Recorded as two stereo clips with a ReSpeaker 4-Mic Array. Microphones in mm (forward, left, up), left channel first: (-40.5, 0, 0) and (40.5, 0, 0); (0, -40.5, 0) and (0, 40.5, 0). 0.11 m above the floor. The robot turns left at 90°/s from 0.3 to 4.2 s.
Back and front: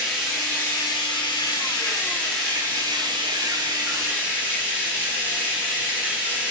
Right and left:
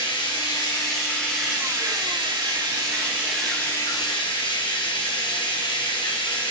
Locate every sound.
0.0 s running water: 85° right, 3 m; by 6.5 s 75° right, 3 m